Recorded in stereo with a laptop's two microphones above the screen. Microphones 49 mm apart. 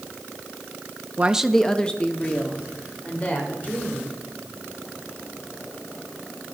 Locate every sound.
1.2 s a woman speaking: 35° right (ahead or behind), 0.5 m; by 4.1 s 35° left (ahead or behind), 4.5 m